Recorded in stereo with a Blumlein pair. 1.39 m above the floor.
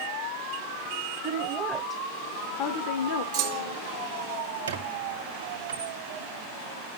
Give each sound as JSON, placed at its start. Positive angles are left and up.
{"t": 1.2, "sound": "a woman speaking", "azimuth_deg": -30, "distance_m": 1.0}
{"t": 3.3, "sound": "a clunk", "azimuth_deg": -45, "distance_m": 1.0}
{"t": 4.7, "sound": "a squeak", "azimuth_deg": -70, "distance_m": 1.5}